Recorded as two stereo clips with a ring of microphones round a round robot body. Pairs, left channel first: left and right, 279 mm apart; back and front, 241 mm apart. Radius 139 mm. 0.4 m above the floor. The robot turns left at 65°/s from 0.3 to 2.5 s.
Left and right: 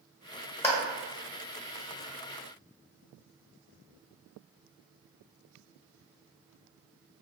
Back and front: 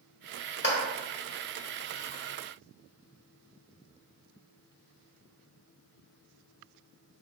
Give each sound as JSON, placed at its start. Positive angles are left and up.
{"t": 0.6, "sound": "a clap", "azimuth_deg": 170, "distance_m": 1.4}